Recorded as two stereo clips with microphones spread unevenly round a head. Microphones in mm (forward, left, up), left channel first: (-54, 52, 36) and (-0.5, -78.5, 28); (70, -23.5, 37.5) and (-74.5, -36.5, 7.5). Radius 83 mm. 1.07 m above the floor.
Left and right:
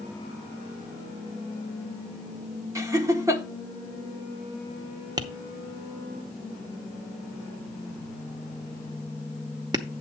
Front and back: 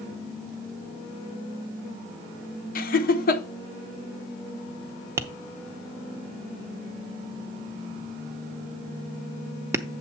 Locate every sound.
2.8 s laughter: 5° right, 1.2 m
5.2 s tapping: 100° right, 0.7 m